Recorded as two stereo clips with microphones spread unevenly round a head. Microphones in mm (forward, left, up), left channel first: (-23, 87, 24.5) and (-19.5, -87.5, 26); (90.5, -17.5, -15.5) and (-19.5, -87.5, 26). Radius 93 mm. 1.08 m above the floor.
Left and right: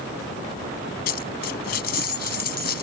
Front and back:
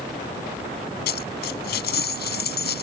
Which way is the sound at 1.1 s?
50° left.